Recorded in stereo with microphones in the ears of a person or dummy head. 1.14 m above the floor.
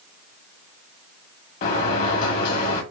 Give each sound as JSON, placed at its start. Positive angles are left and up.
{"t": 1.6, "sound": "a sliding door", "side_deg": 50, "distance_m": 1.3}